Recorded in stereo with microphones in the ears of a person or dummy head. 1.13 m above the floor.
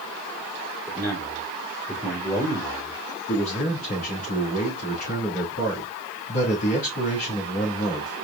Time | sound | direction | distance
0.9 | a man speaking | 10° left (ahead or behind) | 2.5 m
3.3 | a man speaking | 55° left (ahead or behind) | 2.5 m